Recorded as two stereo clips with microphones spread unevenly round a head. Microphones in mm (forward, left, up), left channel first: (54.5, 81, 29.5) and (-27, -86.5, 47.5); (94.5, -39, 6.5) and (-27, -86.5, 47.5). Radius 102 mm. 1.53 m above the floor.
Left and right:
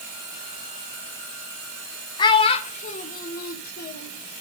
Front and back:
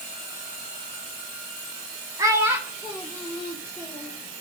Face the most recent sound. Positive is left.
turn(degrees=110)